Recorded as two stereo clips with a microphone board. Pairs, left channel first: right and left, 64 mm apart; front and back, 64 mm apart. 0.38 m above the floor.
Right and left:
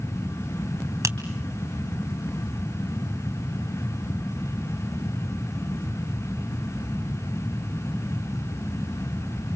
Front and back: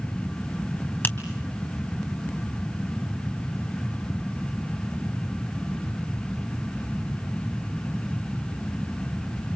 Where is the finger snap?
60° left, 3 m.